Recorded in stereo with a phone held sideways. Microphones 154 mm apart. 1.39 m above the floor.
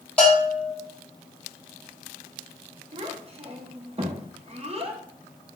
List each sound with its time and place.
0.2 s a bell: 10° left (ahead or behind), 1.1 m
2.9 s a child speaking: 40° right (ahead or behind), 0.5 m